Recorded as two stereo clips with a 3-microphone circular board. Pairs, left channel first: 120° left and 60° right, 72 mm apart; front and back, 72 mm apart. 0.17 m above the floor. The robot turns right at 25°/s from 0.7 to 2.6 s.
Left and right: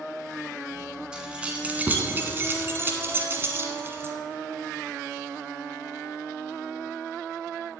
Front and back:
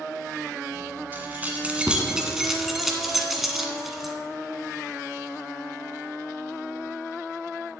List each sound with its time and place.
1.1 s keys jangling: 130° right, 1.3 m; by 4.1 s 95° right, 1.3 m